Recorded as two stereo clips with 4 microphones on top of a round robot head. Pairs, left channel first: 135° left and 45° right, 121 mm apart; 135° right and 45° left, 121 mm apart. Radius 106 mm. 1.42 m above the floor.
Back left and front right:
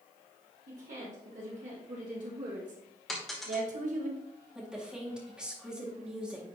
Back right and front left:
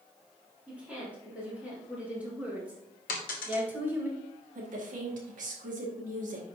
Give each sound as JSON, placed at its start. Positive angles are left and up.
{"t": 0.7, "sound": "a woman speaking", "azimuth_deg": -35, "distance_m": 3.5}
{"t": 3.1, "sound": "a dropped coin", "azimuth_deg": -135, "distance_m": 1.1}
{"t": 4.5, "sound": "a woman speaking", "azimuth_deg": 35, "distance_m": 2.0}